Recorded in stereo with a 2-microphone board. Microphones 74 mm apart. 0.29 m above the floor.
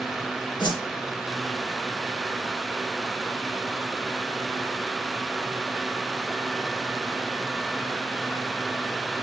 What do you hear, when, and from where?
0.6 s a whoosh: 80° left, 4 m